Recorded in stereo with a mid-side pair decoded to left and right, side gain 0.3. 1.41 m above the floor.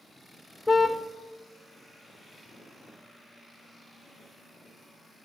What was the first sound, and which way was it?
A car horn, 25° left.